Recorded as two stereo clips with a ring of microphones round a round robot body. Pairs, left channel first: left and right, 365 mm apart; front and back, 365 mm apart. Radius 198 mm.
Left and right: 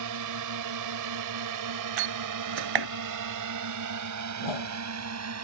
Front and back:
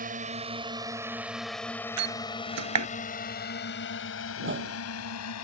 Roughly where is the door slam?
Behind right.